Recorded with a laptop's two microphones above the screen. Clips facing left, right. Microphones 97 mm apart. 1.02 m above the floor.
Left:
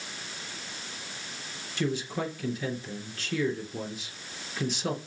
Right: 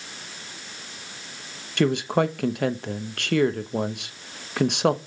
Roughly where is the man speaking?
Right.